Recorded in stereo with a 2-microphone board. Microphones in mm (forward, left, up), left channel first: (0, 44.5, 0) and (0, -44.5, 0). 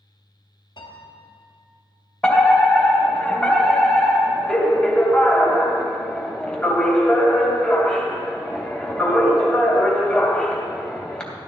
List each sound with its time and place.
0.8 s a piano: 60° left (ahead or behind), 2.5 m
2.2 s a fire alarm: 10° left (ahead or behind), 2 m